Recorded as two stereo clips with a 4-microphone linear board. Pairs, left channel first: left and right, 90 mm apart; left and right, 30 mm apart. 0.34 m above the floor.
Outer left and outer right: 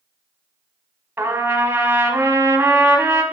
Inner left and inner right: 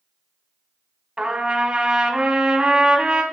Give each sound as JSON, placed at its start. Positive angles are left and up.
{"t": 1.2, "sound": "a trumpet", "side_deg": -25, "distance_m": 1.1}